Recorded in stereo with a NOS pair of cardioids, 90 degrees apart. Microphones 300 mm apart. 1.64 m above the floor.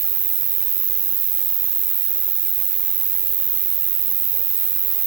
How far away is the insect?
About 0.9 m.